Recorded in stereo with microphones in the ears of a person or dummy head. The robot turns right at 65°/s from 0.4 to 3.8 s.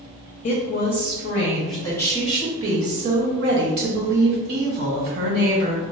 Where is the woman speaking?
65° left, 0.7 m; by 5.8 s 75° right, 0.7 m.